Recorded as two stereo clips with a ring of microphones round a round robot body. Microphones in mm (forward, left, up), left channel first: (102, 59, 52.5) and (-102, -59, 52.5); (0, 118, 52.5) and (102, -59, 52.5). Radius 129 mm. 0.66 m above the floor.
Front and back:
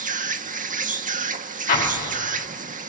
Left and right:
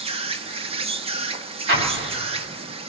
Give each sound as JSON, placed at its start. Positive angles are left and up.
{"t": 0.0, "sound": "an insect", "azimuth_deg": -110, "distance_m": 1.3}
{"t": 1.7, "sound": "an explosion", "azimuth_deg": -25, "distance_m": 6.5}